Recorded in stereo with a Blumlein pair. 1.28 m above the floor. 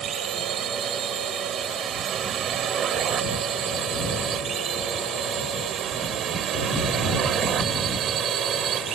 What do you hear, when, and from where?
0.0 s a drone: 25° right; by 9.0 s 30° right